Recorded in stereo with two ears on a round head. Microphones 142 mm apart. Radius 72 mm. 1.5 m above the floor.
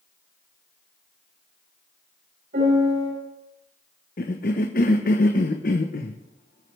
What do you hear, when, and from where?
2.5 s a piano: 65° right (ahead or behind), 8 m
4.2 s a cough: 55° left (ahead or behind), 1.0 m